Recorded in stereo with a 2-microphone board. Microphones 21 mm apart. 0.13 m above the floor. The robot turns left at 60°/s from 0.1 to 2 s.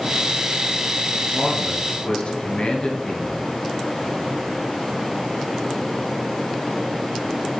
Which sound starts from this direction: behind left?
A man speaking, at 1.3 s.